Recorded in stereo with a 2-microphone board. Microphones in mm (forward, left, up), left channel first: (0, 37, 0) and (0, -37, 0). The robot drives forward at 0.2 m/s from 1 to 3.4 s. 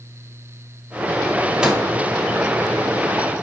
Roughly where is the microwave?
Centre.